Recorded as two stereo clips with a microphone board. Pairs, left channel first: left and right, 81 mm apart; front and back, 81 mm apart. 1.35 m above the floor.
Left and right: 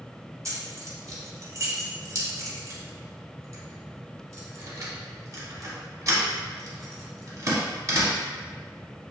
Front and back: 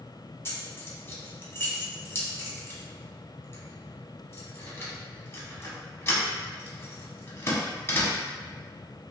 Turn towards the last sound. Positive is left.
turn(degrees=-50)